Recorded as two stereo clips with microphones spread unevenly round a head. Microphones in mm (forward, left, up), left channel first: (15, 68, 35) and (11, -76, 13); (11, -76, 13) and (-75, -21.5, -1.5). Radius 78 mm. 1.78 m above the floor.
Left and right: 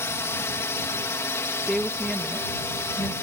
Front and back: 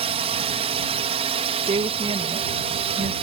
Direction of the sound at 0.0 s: 165° left.